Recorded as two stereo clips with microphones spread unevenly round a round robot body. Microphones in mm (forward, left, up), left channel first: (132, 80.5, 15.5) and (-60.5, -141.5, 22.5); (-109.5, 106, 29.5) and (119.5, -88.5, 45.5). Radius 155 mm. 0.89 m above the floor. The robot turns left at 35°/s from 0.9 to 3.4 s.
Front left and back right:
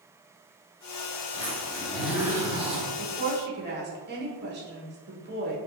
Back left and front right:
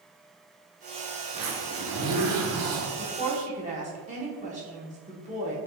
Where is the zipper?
15° right, 1.0 m; by 2.9 s 70° right, 1.0 m.